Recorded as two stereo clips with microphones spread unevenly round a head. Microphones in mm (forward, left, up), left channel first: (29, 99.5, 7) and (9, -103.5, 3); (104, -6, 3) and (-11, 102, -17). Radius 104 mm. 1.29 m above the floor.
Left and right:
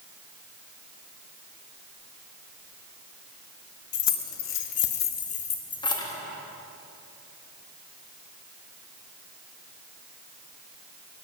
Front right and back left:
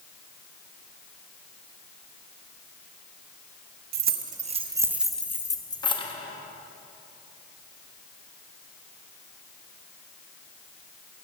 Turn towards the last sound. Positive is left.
turn(degrees=10)